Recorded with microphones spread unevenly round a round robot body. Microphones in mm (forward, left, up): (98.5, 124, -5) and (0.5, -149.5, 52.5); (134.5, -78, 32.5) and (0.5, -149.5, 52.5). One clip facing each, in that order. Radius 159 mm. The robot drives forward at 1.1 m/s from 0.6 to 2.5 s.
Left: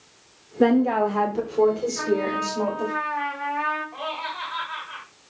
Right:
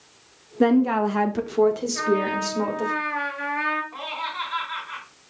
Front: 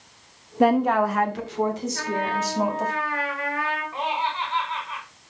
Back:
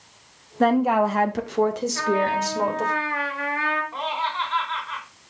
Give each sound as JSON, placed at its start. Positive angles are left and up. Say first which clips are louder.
{"t": 0.6, "sound": "a woman speaking", "louder": "even, even", "azimuth_deg": -20, "distance_m": 0.8}
{"t": 1.9, "sound": "a trumpet", "louder": "even, back 4 dB", "azimuth_deg": -140, "distance_m": 6.0}
{"t": 3.9, "sound": "laughter", "louder": "left 3 dB, front 1 dB", "azimuth_deg": 180, "distance_m": 3.0}